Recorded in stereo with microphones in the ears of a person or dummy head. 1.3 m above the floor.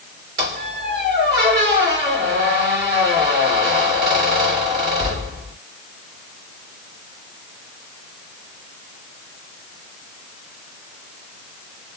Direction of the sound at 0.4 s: 30° right (ahead or behind).